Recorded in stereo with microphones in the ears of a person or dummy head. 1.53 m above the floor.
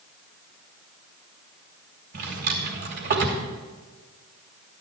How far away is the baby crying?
No baby crying in this recording.